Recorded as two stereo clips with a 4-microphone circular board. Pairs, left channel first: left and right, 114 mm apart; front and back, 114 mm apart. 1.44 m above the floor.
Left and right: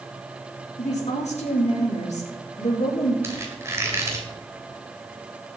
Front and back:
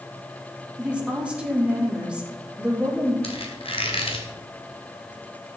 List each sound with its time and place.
0.8 s a woman speaking: 100° left, 3.5 m
3.2 s a squeak: 25° right, 2.5 m